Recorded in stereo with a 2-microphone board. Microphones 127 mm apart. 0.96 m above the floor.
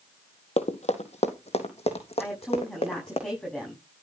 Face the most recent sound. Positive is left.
turn(degrees=5)  # may be behind; listen again after turning